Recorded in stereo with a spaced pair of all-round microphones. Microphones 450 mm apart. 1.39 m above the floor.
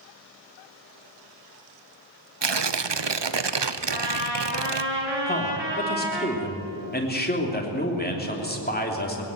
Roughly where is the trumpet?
Right.